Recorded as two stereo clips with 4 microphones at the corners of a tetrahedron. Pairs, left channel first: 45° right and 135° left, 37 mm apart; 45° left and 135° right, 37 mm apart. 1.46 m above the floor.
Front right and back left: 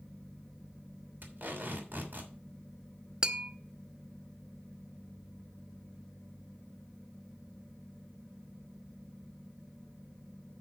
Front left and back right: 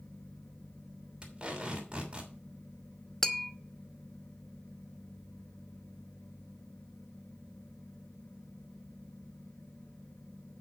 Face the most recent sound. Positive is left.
turn(degrees=110)